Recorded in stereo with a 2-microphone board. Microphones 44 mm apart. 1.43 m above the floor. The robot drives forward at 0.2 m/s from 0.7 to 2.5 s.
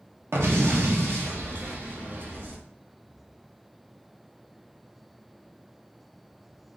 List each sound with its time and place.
0.3 s an explosion: 65° right (ahead or behind), 0.7 m; by 2.6 s 45° right (ahead or behind), 1.0 m